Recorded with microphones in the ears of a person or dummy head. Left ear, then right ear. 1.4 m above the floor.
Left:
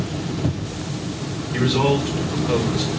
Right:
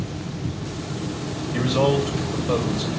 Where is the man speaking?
20° left (ahead or behind), 4.5 m.